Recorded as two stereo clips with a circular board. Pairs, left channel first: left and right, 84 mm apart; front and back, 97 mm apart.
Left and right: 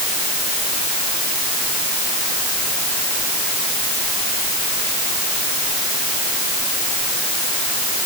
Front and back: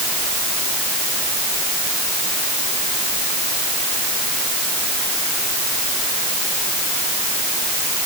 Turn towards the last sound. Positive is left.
No sound to turn to.